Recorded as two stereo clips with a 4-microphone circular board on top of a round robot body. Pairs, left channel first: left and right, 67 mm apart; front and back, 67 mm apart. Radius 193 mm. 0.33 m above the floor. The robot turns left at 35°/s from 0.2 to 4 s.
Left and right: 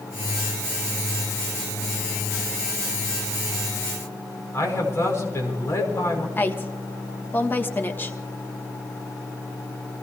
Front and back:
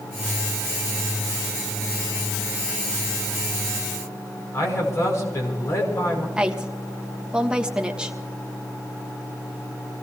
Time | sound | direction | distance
4.5 | a man speaking | 45° left | 6 m
6.4 | a woman speaking | 115° left | 1.6 m